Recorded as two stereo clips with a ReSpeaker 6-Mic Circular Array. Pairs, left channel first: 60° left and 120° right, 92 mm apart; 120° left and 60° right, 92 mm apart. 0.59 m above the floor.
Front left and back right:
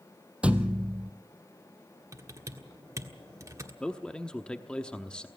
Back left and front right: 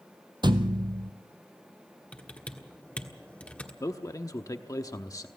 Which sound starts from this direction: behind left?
A man speaking, at 3.8 s.